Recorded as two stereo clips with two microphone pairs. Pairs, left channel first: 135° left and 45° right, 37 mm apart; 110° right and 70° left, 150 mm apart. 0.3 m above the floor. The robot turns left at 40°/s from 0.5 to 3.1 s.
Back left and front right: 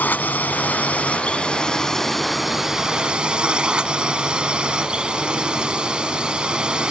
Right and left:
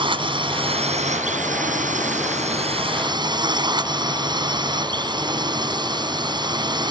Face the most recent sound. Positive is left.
turn(degrees=15)